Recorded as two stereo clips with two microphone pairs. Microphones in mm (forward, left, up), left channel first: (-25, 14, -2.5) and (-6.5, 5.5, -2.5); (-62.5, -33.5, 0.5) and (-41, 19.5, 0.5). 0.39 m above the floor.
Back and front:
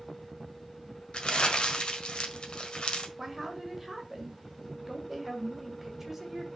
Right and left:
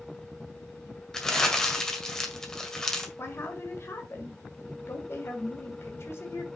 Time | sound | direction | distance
1.1 | crumpling | 170° left | 1.6 m
3.2 | a woman speaking | 95° right | 1.8 m